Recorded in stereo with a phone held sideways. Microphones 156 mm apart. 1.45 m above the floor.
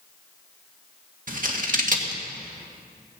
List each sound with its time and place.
1.3 s scissors: 55° right (ahead or behind), 1.7 m